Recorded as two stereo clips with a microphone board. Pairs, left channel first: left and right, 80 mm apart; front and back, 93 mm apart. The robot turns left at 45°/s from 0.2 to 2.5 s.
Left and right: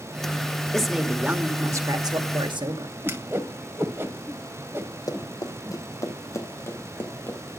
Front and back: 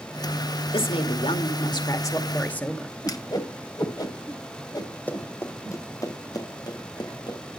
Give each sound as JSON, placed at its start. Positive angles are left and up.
{"t": 0.7, "sound": "a woman speaking", "azimuth_deg": 10, "distance_m": 1.9}
{"t": 3.0, "sound": "a whoosh", "azimuth_deg": -35, "distance_m": 1.4}
{"t": 5.1, "sound": "running footsteps", "azimuth_deg": 70, "distance_m": 1.9}